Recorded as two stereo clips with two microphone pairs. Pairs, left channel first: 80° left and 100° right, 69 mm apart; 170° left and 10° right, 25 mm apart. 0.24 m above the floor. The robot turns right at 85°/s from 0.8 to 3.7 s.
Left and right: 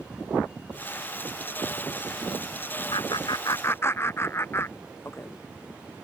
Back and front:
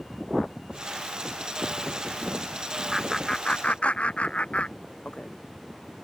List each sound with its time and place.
2.9 s laughter: 70° left; by 5.3 s 135° left